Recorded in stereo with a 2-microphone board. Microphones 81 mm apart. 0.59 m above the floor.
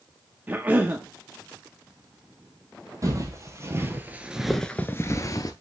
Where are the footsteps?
40° right (ahead or behind), 1.3 m; by 5.5 s 45° left (ahead or behind), 0.8 m.